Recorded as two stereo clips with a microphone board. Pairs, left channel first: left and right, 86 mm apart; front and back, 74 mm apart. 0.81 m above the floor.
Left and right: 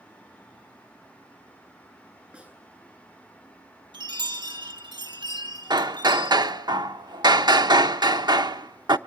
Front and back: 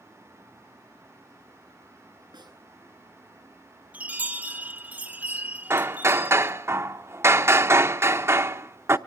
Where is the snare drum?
160° right, 9.5 m.